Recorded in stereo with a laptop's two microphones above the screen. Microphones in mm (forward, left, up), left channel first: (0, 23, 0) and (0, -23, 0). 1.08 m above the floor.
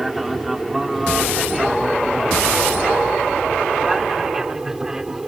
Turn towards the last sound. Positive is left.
turn(degrees=-10)  # may be behind; listen again after turning